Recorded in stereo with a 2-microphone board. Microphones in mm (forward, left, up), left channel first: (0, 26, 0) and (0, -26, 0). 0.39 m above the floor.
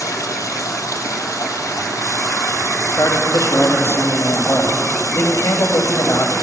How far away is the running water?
About 2.5 m.